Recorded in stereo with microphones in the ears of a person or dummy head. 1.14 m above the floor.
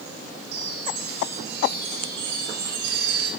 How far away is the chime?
About 4.5 m.